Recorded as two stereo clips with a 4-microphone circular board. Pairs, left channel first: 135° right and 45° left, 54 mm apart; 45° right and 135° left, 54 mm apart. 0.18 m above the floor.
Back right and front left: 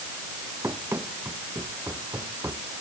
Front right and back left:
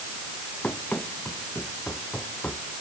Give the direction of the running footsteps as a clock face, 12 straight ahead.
11 o'clock.